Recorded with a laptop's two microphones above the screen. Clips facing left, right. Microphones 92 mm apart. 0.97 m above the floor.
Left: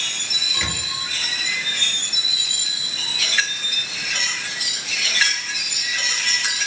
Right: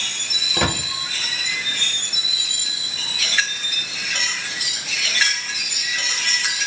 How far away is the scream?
No scream in this recording.